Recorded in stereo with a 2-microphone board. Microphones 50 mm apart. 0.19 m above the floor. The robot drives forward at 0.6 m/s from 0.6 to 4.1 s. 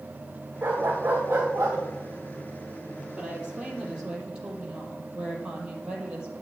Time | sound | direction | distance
0.6 | a dog barking | 35° right (ahead or behind) | 5.5 m
3.2 | a woman speaking | 20° right (ahead or behind) | 5 m